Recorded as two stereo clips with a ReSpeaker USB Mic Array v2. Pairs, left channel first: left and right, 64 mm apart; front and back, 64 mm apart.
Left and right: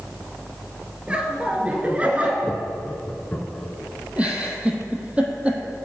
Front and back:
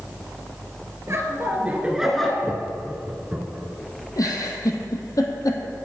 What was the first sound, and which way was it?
Laughter, 155° right.